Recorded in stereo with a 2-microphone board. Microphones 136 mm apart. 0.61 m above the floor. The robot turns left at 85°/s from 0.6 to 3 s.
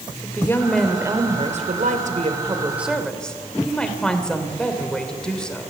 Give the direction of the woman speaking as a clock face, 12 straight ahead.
11 o'clock.